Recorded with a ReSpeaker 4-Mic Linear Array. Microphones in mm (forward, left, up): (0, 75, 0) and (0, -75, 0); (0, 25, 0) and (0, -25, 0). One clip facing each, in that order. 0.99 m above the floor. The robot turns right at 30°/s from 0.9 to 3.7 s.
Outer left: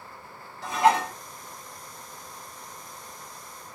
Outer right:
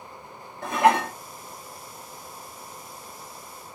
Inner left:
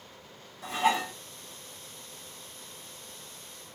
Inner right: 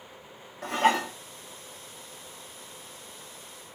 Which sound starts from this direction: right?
Dishes clattering, at 0.6 s.